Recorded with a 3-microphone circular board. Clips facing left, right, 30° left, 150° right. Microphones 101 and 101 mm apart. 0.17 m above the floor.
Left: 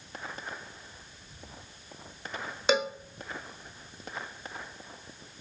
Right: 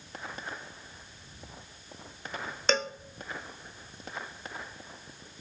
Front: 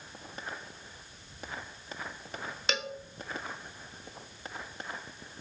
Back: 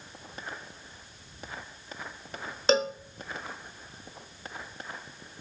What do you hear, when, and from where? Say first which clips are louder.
2.7 s a cowbell: left 3 dB, back 11 dB; 170° left, 0.6 m